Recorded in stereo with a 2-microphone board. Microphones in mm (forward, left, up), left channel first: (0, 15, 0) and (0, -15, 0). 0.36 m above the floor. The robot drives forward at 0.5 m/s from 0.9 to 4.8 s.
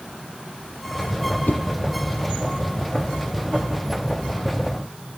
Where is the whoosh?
85° left, 0.9 m.